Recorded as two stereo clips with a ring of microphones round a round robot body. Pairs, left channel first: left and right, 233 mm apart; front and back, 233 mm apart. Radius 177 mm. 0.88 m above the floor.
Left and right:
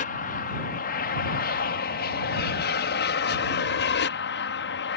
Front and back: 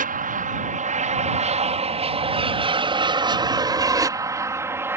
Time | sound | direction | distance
0.0 | an aircraft | 140° left | ?